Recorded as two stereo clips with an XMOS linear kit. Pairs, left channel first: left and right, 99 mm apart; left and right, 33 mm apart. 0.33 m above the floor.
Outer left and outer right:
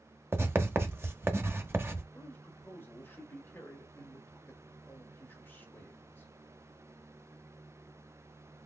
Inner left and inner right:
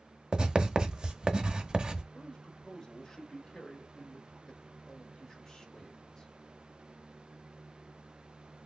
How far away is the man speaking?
About 1.5 m.